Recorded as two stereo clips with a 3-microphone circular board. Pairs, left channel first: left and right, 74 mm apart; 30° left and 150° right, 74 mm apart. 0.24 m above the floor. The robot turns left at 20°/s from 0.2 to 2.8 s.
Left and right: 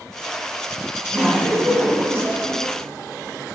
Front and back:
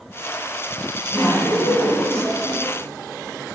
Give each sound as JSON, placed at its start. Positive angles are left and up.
{"t": 1.1, "sound": "laughter", "azimuth_deg": -20, "distance_m": 2.5}